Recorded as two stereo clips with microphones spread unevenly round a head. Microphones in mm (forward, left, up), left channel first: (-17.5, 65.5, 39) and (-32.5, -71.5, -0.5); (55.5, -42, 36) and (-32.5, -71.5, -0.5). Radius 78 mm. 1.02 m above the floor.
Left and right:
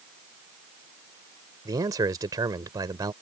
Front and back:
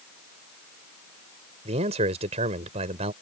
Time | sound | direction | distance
1.6 | a man speaking | 165° right | ?